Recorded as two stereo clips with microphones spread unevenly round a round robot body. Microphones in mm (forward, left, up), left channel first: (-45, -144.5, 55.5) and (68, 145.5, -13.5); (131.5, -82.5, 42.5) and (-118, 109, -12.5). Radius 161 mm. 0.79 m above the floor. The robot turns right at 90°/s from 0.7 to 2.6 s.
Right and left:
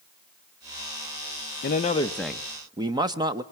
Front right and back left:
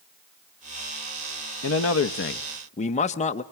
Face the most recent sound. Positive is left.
turn(degrees=30)